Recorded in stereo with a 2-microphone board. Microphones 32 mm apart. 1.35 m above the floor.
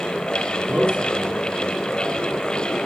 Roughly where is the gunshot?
No gunshot in this recording.